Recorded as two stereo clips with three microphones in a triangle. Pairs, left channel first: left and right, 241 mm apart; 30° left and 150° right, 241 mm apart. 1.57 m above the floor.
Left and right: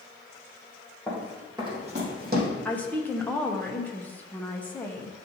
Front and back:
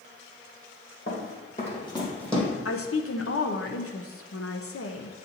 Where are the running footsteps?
Straight ahead, 2.5 m; by 2.5 s 60° right, 2.5 m.